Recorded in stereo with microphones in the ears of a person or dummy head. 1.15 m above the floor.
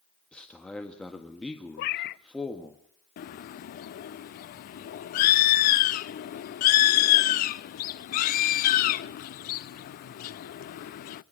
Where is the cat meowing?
50° left (ahead or behind), 0.6 m.